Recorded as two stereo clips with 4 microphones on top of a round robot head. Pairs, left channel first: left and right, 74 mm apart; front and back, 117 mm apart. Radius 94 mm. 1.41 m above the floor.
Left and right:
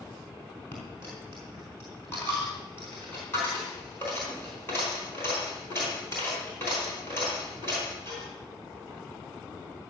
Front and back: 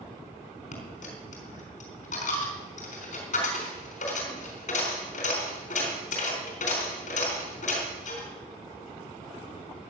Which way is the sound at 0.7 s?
20° left.